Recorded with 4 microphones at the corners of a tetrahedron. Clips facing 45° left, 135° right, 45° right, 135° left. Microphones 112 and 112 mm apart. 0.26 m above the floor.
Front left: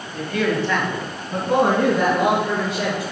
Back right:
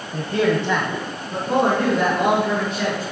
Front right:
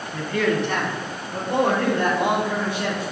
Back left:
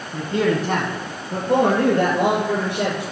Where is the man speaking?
155° right, 1.2 m; by 3.0 s 120° left, 4.5 m.